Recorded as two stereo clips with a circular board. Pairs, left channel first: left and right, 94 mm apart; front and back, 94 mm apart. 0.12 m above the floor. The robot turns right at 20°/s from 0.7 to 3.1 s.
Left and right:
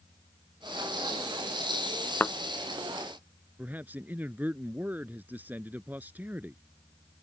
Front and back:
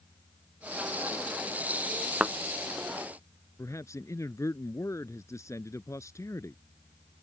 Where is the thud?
120° left; by 2.4 s 125° left.